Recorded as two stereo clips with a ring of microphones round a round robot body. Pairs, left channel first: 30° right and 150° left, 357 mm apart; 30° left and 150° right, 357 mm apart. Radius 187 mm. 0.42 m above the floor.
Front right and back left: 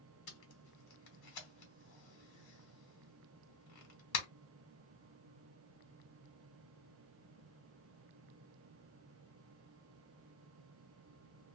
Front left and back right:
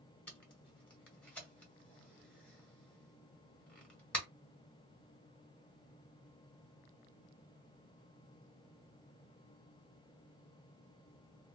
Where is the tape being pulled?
55° right, 1.5 m.